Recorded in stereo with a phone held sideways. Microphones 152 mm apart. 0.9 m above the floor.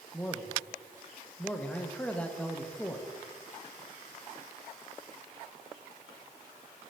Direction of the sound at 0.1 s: 10° left (ahead or behind).